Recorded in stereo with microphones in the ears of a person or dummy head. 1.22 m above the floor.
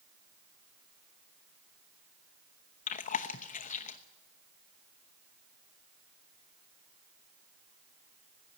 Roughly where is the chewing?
Left.